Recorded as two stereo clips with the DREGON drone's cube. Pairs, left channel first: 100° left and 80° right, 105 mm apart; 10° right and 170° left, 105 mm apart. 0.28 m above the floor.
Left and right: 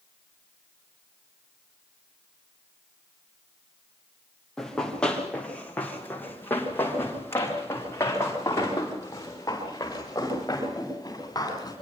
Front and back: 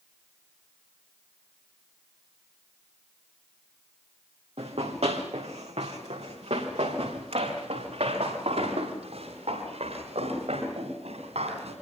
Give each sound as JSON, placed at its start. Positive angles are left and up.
{"t": 4.6, "sound": "running footsteps", "azimuth_deg": -175, "distance_m": 5.0}